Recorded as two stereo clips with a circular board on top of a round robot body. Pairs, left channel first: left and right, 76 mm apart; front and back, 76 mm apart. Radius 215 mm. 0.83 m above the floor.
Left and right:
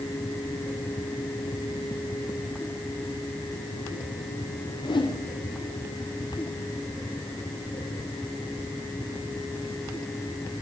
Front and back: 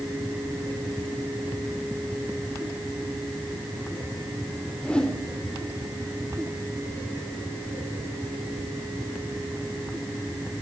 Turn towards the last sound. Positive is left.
turn(degrees=80)